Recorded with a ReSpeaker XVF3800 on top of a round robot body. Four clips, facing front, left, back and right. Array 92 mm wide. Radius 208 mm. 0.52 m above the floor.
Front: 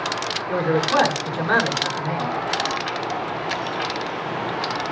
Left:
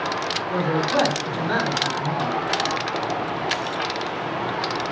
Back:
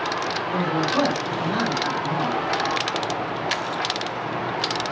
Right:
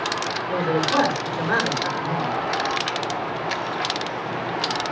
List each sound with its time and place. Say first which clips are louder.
0.5 s a man speaking: right 1 dB, front 4 dB; 20° right, 7 m